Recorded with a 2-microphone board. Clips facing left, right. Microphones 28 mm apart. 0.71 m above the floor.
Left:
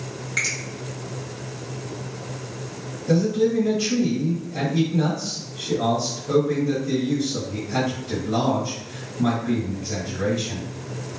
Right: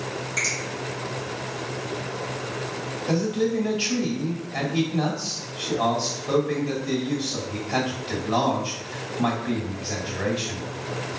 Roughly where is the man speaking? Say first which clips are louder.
Left 4 dB; right.